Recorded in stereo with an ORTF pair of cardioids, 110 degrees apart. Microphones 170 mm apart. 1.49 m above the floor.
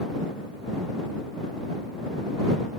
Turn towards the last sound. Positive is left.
No sound to turn to.